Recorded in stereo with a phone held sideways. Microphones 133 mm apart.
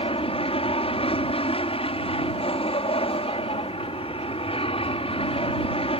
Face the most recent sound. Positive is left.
turn(degrees=45)  # may be behind; listen again after turning